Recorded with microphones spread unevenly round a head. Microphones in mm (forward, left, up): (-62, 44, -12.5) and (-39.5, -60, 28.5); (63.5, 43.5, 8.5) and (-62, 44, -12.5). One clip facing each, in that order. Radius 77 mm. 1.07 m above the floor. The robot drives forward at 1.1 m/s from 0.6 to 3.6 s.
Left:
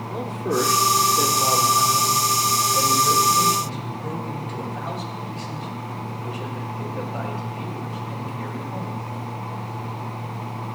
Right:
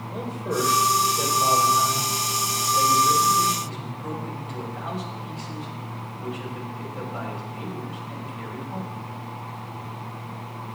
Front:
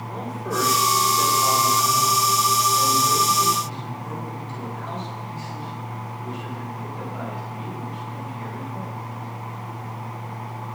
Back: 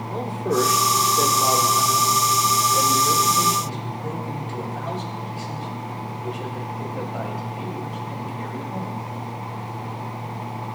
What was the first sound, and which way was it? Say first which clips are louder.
A man speaking: left 3 dB, back 5 dB; 120° left.